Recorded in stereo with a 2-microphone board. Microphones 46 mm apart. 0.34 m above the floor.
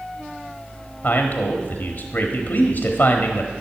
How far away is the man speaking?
About 1.3 m.